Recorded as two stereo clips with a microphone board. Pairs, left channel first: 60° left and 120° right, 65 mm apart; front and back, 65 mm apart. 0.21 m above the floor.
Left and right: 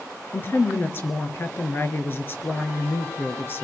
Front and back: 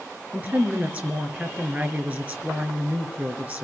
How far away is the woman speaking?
About 3.5 m.